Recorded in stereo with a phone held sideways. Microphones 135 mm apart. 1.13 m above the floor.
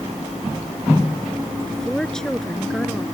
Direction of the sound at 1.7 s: 5° left (ahead or behind).